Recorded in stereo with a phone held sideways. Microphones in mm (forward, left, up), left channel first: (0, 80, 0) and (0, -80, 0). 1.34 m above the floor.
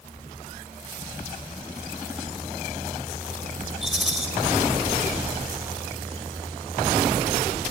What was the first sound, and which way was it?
A rattle, centre (ahead or behind).